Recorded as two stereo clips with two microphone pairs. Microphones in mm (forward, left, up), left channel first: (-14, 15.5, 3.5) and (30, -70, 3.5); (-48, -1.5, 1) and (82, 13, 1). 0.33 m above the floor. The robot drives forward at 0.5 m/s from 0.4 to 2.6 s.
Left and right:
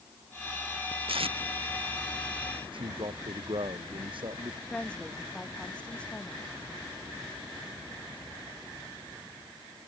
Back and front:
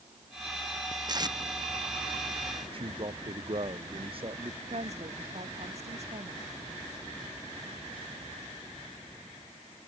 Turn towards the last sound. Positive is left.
turn(degrees=40)